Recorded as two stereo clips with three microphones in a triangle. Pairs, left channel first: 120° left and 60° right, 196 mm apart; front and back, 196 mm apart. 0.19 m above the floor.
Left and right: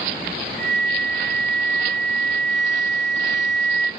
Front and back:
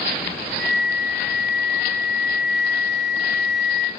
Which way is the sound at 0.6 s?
110° right.